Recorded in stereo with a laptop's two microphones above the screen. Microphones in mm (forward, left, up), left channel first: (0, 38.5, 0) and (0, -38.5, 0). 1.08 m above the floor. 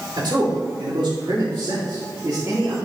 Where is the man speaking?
70° right (ahead or behind), 3.5 m; by 2.8 s 45° right (ahead or behind), 2.5 m.